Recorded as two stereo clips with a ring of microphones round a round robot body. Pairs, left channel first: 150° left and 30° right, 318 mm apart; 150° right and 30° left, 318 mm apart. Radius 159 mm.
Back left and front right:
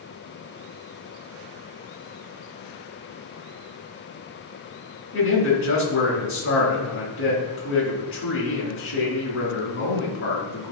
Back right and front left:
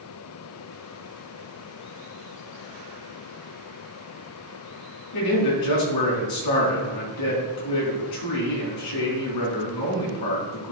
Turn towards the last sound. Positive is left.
turn(degrees=-160)